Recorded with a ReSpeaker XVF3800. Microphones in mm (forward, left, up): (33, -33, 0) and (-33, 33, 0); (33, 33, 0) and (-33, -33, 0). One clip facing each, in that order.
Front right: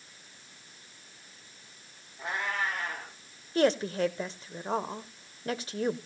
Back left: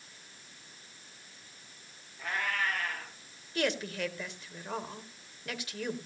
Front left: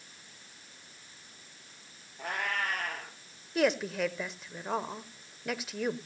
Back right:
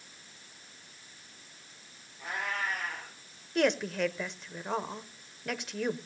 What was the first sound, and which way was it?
A cat meowing, 20° left.